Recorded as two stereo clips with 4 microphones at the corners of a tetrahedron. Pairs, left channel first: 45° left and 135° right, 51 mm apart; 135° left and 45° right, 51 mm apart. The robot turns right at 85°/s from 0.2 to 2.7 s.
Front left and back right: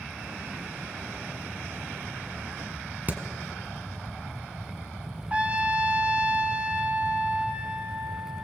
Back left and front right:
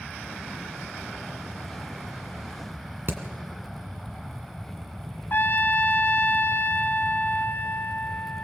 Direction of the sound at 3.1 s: 80° right.